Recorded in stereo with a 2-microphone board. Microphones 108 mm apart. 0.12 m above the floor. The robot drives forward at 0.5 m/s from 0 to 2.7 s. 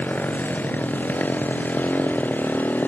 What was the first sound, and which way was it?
A motorcycle, 15° left (ahead or behind).